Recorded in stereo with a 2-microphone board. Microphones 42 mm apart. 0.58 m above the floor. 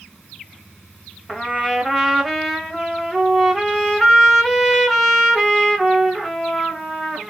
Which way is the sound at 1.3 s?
5° right (ahead or behind).